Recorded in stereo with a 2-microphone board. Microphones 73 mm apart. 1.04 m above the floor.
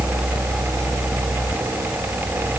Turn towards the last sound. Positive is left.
No sound to turn to.